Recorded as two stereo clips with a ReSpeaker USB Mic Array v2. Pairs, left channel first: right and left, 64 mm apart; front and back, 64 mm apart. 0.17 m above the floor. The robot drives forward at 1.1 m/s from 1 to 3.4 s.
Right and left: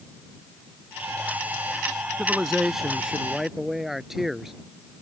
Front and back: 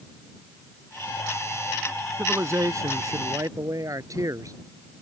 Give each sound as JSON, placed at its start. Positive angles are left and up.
{"t": 2.2, "sound": "a man speaking", "azimuth_deg": 170}